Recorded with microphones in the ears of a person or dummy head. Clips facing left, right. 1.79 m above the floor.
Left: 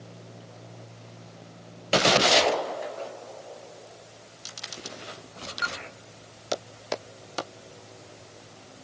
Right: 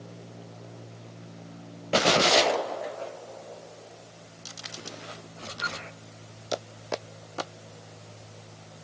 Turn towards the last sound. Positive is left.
No sound to turn to.